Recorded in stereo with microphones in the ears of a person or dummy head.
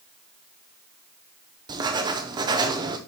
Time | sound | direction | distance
1.7 | writing | 25° right (ahead or behind) | 0.6 m